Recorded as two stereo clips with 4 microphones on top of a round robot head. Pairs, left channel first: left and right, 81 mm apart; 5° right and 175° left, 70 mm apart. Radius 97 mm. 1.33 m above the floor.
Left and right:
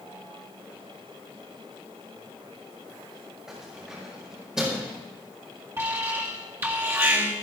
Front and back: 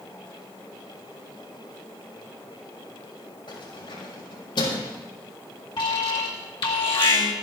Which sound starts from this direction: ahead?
Keys jangling, at 3.5 s.